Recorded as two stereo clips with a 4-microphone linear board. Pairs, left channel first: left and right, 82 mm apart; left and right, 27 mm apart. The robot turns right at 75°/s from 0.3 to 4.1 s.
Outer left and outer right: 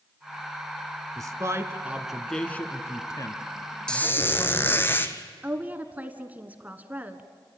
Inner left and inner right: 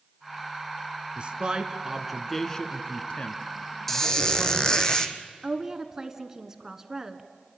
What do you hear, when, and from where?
1.2 s a man speaking: 45° right (ahead or behind), 1.4 m; by 4.9 s 25° left (ahead or behind), 1.4 m
3.9 s a squeak: 10° left (ahead or behind), 1.2 m; by 5.2 s 25° left (ahead or behind), 1.2 m
5.4 s a woman speaking: 20° right (ahead or behind), 1.4 m